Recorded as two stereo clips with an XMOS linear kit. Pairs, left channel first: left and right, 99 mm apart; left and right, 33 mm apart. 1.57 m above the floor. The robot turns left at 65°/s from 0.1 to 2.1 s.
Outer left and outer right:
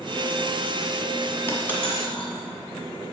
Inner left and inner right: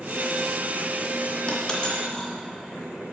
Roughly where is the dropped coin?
Left.